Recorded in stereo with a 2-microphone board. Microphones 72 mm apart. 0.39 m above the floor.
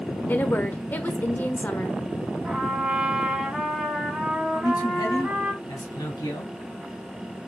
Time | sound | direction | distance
0.3 | a woman speaking | 25° left (ahead or behind) | 1.1 m
2.5 | a trumpet | 5° right (ahead or behind) | 2.5 m
4.5 | a man speaking | 60° left (ahead or behind) | 3 m